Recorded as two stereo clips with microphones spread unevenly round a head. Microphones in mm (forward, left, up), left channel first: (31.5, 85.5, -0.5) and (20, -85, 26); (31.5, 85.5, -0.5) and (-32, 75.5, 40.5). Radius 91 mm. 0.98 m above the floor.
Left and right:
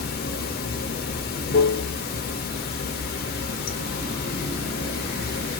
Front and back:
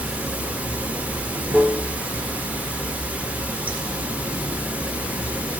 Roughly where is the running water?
Left.